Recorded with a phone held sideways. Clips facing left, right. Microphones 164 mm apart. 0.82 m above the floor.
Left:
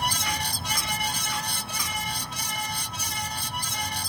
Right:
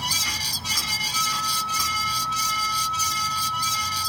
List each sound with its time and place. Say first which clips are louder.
0.0 s a fan: left 5 dB; 55° left (ahead or behind)
1.1 s a flute: right 2 dB; 40° left (ahead or behind)